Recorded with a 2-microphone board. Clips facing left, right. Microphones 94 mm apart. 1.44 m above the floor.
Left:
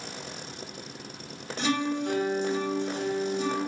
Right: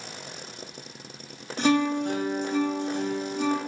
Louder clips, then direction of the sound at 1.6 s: Right 5 dB; 50° right (ahead or behind).